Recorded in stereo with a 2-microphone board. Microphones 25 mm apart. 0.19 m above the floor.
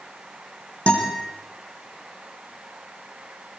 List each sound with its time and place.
0.9 s a guitar: 60° left (ahead or behind), 5.5 m